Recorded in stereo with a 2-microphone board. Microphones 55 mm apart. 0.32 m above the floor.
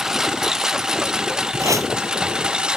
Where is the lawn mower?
5° right (ahead or behind); by 2.8 s 15° right (ahead or behind).